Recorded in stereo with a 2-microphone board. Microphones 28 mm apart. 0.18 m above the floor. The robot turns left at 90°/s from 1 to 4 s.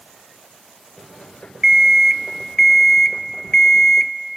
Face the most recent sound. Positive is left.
turn(degrees=15)  # may be behind; listen again after turning